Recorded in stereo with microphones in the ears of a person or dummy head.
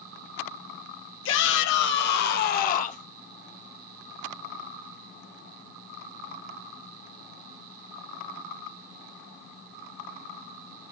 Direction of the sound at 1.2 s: 75° left (ahead or behind).